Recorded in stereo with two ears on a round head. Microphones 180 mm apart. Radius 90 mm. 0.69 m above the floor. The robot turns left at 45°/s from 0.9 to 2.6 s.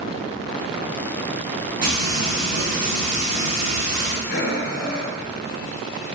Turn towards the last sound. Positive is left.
turn(degrees=45)  # may be behind; listen again after turning